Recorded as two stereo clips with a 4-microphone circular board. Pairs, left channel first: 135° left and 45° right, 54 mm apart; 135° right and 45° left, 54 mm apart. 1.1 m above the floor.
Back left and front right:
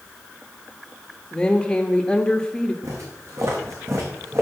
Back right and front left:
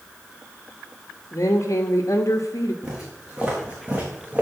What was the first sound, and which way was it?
A woman speaking, 150° right.